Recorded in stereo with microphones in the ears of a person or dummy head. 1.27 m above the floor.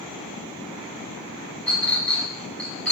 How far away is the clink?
About 3 m.